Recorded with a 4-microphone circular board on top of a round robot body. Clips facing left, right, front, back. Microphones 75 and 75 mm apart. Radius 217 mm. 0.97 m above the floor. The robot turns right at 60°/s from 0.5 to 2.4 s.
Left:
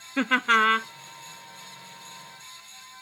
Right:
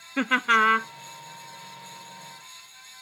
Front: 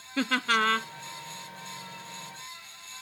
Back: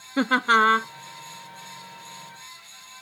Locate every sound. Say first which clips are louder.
0.2 s laughter: even, back 7 dB; straight behind; by 0.9 s 155° right